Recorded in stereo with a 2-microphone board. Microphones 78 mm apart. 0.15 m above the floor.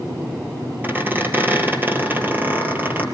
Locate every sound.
0.8 s a squeak: 25° right (ahead or behind), 2 m